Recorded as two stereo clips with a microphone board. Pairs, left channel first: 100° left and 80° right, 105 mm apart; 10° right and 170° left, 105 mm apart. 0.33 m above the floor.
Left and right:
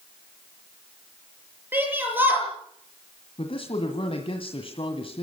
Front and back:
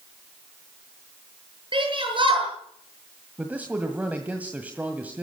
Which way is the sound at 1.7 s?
150° right.